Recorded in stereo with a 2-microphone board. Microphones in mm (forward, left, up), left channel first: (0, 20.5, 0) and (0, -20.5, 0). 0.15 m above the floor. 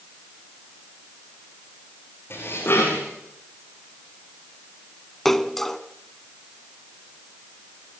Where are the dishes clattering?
70° left (ahead or behind), 8.5 m.